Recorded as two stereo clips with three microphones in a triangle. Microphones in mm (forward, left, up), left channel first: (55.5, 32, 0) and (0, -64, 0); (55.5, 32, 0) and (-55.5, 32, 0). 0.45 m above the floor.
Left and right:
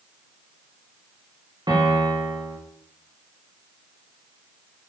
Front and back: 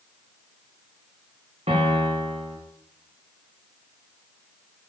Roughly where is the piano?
Behind.